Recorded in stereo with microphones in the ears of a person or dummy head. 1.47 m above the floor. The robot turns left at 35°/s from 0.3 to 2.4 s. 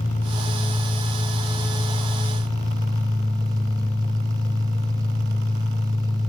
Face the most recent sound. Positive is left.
turn(degrees=-25)